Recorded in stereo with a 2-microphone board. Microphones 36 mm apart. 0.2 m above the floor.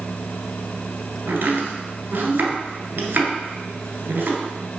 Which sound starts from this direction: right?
Chopping, at 1.3 s.